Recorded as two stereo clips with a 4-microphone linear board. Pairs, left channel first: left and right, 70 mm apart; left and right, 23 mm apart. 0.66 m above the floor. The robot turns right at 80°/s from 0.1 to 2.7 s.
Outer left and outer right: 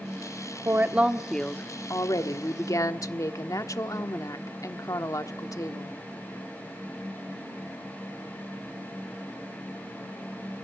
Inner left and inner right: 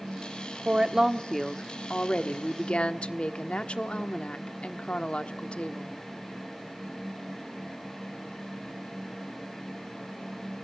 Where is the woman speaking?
45° right, 1.2 m; by 5.9 s 120° left, 1.2 m.